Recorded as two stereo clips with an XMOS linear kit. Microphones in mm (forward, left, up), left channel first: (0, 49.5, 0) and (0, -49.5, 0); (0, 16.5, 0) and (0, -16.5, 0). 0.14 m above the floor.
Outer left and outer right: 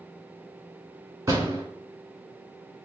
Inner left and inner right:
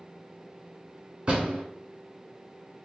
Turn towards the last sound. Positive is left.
turn(degrees=-30)  # may be behind; listen again after turning